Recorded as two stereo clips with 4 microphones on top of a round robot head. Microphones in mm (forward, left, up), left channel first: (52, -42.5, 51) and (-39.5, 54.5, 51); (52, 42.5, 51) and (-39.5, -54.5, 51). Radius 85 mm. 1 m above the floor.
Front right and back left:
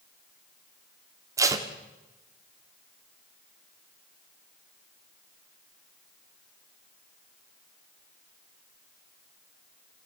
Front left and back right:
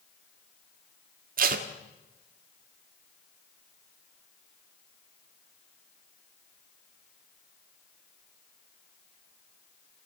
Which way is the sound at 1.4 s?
160° right.